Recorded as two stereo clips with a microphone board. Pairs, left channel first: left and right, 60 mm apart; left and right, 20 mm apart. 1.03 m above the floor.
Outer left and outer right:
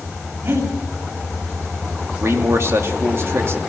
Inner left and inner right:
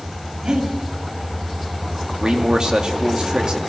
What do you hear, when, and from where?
0.4 s breathing: 50° right (ahead or behind), 6 m
2.2 s a man speaking: 45° right (ahead or behind), 2.5 m